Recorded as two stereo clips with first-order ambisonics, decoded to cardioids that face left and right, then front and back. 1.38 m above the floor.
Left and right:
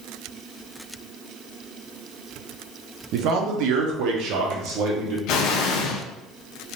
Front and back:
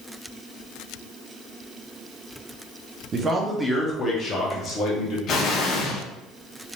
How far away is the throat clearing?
No throat clearing in this recording.